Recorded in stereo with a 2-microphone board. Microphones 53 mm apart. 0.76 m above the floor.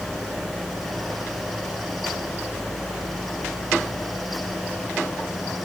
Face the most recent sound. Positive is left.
No sound to turn to.